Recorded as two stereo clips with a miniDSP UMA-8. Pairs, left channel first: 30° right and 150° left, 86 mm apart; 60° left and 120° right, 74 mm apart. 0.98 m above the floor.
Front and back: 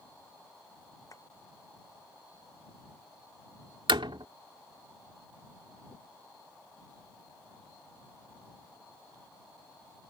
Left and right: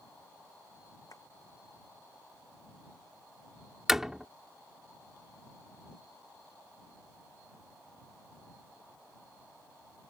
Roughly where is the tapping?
Ahead.